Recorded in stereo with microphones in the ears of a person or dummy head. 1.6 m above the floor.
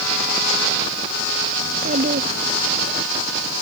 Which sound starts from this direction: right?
A child speaking, at 1.6 s.